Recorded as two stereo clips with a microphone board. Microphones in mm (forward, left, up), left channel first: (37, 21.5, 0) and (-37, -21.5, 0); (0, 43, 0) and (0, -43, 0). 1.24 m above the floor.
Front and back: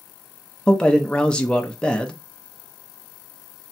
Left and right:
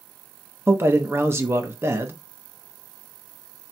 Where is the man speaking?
45° right, 0.6 m.